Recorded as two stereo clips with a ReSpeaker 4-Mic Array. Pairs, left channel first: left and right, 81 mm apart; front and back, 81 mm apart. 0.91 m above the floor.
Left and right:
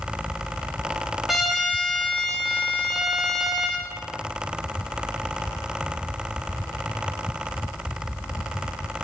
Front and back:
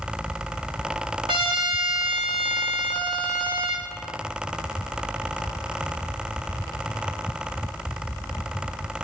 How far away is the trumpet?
About 1.4 m.